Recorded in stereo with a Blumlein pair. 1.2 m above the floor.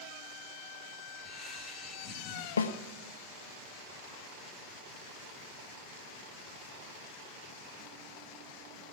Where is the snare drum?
70° left, 1.0 m.